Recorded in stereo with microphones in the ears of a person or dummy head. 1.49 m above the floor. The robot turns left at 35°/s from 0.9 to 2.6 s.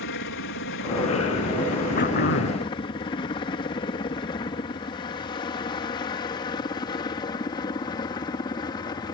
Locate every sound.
0.0 s a helicopter: 60° left (ahead or behind); by 9.2 s 25° left (ahead or behind)
2.0 s throat clearing: 45° left (ahead or behind); by 2.7 s 65° left (ahead or behind)